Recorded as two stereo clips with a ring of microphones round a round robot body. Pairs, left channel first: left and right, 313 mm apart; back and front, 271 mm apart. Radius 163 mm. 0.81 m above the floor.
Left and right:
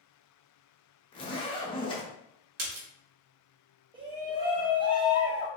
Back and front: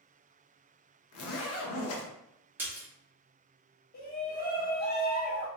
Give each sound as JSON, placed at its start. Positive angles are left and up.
{"t": 1.1, "sound": "a zipper", "azimuth_deg": 165, "distance_m": 0.8}
{"t": 2.6, "sound": "a splash", "azimuth_deg": -80, "distance_m": 0.8}
{"t": 3.9, "sound": "a shout", "azimuth_deg": -155, "distance_m": 0.7}